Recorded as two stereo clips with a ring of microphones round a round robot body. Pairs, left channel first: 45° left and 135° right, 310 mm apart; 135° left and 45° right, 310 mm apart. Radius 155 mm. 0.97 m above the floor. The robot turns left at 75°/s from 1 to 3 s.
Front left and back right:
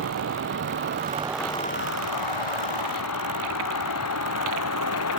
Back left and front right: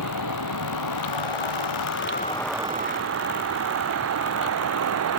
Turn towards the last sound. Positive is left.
turn(degrees=0)